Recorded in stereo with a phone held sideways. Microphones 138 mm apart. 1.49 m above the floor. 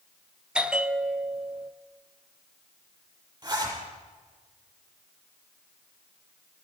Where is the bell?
5° right (ahead or behind), 0.6 m.